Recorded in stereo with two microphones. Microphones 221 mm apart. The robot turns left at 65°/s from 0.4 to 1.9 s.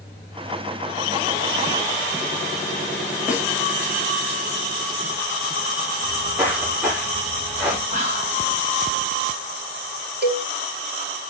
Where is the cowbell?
45° right (ahead or behind), 1.3 m.